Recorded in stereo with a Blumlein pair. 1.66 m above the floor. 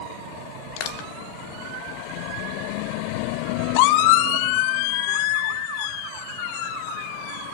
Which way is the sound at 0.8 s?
45° left.